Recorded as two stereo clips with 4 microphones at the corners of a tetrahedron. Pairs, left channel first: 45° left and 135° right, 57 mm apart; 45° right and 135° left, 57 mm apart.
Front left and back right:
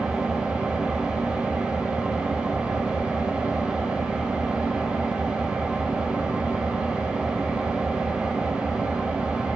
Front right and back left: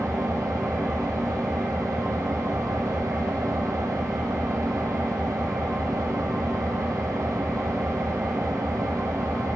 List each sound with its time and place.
0.0 s an engine running: 155° left, 4 m